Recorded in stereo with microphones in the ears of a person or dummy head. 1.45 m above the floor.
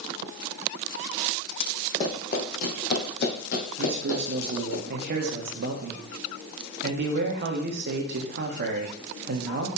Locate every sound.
2.0 s running footsteps: 40° left (ahead or behind), 3 m; by 4.8 s 65° left (ahead or behind), 3.5 m
3.8 s a man speaking: 55° right (ahead or behind), 1.6 m